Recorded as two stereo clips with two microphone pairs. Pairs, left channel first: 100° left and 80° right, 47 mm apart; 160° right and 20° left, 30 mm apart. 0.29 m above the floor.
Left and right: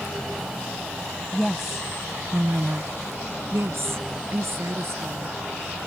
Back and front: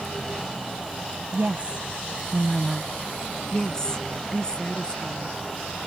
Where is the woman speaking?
20° left; by 5.4 s 100° right.